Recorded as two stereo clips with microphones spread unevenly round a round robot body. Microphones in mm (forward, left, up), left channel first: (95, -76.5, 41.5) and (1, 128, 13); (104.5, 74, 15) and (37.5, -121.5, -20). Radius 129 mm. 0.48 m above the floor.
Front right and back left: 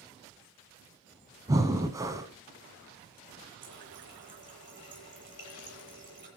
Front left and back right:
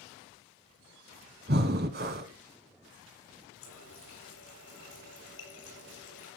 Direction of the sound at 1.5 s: 165° right.